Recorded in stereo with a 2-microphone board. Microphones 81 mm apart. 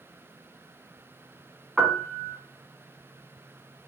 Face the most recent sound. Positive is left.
turn(degrees=-5)  # may be behind; listen again after turning